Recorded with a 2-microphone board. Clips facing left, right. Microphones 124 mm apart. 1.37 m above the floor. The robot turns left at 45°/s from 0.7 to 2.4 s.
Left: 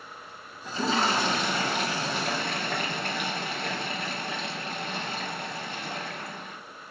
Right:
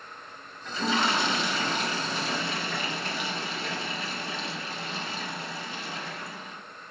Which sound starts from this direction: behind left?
A toilet flushing, at 0.7 s.